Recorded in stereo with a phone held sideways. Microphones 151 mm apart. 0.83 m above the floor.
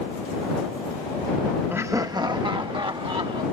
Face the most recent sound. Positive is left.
turn(degrees=-35)  # may be behind; listen again after turning